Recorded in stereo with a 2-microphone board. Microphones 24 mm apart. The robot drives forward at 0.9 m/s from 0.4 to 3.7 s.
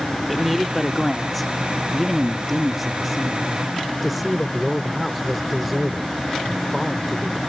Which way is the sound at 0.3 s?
Centre (ahead or behind).